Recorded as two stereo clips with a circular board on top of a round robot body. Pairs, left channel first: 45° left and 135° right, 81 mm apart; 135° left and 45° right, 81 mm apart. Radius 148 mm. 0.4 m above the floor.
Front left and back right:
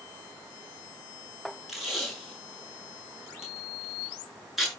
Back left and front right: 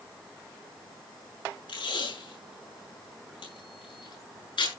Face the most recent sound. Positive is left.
turn(degrees=140)